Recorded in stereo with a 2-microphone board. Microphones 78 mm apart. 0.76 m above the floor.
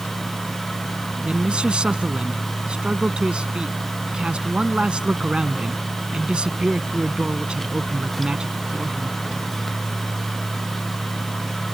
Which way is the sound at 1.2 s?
10° right (ahead or behind).